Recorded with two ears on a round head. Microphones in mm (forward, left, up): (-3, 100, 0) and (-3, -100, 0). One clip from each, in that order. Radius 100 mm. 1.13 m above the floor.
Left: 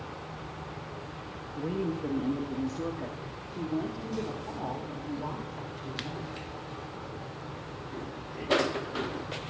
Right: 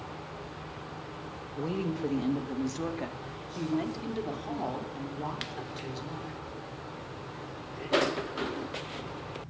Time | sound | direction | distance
1.6 | a woman speaking | 40° right (ahead or behind) | 1.7 m